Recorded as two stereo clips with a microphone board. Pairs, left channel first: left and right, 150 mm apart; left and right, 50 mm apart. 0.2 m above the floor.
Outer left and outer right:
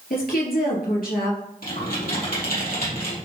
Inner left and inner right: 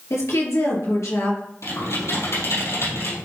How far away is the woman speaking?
About 3 m.